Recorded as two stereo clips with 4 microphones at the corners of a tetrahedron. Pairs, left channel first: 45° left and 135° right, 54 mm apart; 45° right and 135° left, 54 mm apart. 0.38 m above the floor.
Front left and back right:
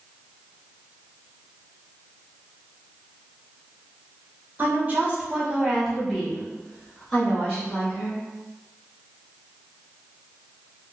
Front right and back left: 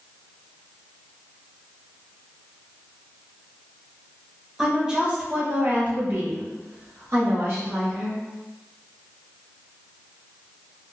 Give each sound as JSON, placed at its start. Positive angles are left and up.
{"t": 4.6, "sound": "a woman speaking", "azimuth_deg": -150, "distance_m": 1.1}